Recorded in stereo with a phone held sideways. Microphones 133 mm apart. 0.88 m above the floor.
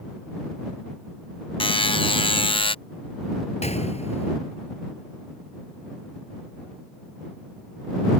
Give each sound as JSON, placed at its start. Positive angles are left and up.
{"t": 1.6, "sound": "a buzzer", "side_deg": 40}
{"t": 3.6, "sound": "a gunshot", "side_deg": 50}